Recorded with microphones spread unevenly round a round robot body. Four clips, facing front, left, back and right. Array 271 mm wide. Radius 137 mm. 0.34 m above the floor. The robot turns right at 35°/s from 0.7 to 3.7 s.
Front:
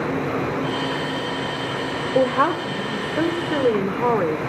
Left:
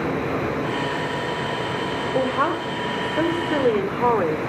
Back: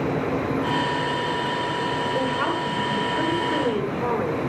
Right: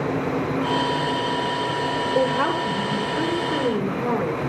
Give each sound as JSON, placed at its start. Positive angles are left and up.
{"t": 2.1, "sound": "a woman speaking", "azimuth_deg": -5, "distance_m": 1.7}